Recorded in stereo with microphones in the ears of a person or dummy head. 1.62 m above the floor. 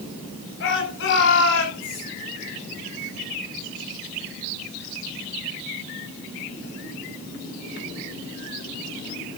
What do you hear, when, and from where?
0.6 s a shout: 65° left (ahead or behind), 10 m; by 2.0 s 55° left (ahead or behind), 10 m